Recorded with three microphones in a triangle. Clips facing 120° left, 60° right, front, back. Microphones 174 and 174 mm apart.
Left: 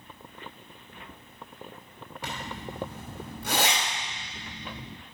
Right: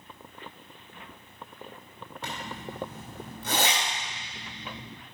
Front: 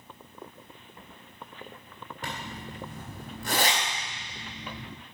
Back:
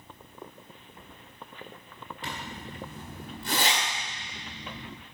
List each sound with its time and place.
2.2 s a zipper: 40° left, 3 m